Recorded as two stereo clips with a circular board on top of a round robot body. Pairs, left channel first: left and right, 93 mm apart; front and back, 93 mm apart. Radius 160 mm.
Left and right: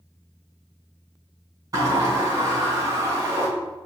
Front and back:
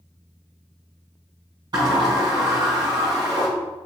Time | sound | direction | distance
1.7 | a sliding door | 140° right | 4 m